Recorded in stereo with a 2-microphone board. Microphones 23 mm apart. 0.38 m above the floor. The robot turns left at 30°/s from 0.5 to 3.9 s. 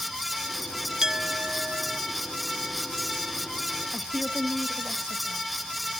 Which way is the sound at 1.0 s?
30° right (ahead or behind).